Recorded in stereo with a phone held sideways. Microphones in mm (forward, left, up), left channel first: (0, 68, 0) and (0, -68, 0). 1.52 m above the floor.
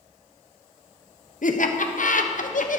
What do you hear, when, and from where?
1.4 s laughter: 65° left (ahead or behind), 0.9 m